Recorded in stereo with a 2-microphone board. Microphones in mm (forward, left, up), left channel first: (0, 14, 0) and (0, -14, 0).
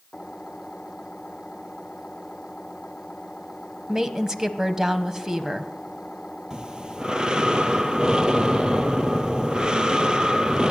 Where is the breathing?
30° right (ahead or behind), 1.2 m.